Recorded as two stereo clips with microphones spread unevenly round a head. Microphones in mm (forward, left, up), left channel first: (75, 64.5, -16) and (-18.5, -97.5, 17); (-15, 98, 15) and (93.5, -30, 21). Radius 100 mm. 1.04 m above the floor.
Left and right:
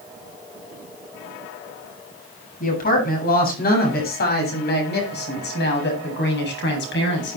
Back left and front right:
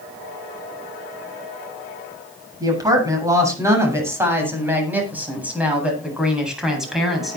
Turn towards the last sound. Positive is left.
turn(degrees=40)